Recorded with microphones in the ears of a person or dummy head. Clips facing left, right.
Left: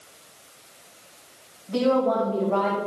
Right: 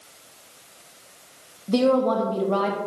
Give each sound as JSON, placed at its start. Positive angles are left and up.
{"t": 1.7, "sound": "a woman speaking", "side_deg": -70, "distance_m": 1.1}